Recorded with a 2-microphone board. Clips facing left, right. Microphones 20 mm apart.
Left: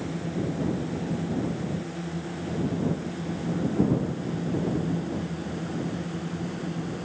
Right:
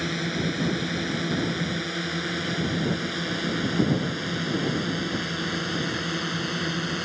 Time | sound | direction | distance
0.0 | a drone | 80° right | ?